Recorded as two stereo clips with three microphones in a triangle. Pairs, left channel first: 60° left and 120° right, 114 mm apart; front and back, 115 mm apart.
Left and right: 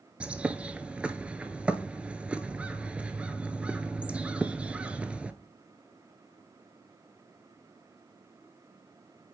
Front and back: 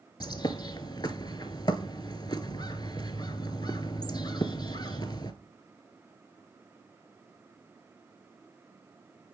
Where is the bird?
40° right, 0.5 m.